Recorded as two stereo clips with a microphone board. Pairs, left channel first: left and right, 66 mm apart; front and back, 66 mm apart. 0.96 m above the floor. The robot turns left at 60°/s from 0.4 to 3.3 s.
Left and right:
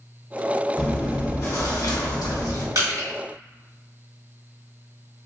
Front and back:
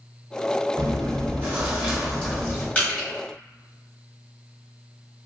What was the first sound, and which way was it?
Chewing, 170° left.